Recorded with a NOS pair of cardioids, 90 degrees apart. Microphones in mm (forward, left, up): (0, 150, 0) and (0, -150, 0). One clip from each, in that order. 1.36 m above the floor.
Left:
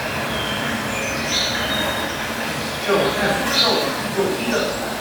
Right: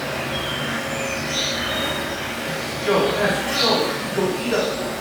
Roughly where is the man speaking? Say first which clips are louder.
Even; ahead.